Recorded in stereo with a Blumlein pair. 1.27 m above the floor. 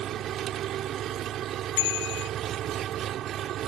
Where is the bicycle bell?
50° left.